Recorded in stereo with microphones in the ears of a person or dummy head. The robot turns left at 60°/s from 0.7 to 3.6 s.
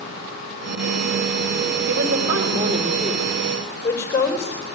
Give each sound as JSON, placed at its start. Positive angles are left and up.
{"t": 1.9, "sound": "a woman speaking", "azimuth_deg": -85, "distance_m": 4.0}